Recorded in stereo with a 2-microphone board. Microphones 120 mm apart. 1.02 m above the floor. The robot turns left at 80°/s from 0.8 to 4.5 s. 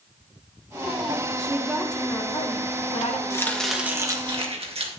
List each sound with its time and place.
1.4 s a woman speaking: 145° right, 2 m; by 3.2 s 70° left, 2 m
3.3 s chopping: 30° left, 1.9 m; by 4.9 s 65° right, 1.9 m